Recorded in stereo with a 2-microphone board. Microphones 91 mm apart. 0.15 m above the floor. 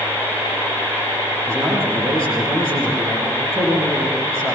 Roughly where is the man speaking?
Right.